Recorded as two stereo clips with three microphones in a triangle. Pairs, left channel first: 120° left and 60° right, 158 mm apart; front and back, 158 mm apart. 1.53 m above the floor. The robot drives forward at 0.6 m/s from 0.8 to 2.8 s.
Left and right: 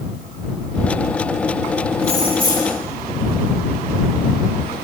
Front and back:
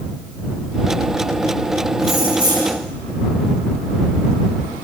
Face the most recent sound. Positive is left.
turn(degrees=-120)